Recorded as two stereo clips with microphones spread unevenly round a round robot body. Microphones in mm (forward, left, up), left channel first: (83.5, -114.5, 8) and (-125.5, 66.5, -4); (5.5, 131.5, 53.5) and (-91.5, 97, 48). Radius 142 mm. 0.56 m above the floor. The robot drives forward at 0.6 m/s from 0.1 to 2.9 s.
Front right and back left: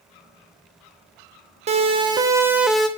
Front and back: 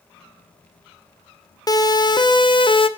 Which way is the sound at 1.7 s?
70° left.